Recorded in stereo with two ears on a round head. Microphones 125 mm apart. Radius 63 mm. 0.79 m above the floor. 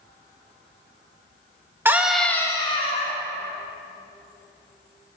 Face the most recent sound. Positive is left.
turn(degrees=50)  # may be behind; listen again after turning